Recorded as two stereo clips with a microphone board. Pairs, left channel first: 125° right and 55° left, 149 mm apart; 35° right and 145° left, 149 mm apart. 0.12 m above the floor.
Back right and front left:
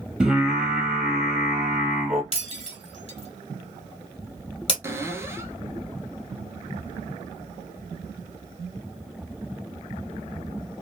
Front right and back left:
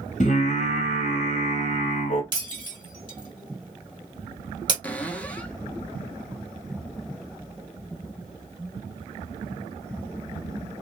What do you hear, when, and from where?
0.2 s singing: 30° right, 0.8 m
2.3 s breaking glass: 160° right, 1.5 m
4.8 s a cupboard door: 25° left, 0.5 m